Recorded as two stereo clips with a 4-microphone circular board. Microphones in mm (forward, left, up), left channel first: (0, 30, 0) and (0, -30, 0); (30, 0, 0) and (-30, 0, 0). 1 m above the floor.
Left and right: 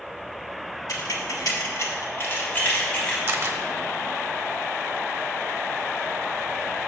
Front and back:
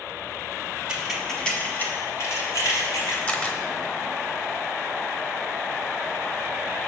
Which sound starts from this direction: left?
Keys jangling, at 0.9 s.